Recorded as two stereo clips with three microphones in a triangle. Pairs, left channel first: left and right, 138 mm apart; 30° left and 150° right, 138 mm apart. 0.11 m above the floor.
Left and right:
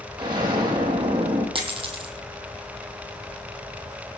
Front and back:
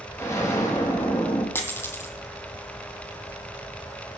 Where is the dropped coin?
45° right, 1.9 m.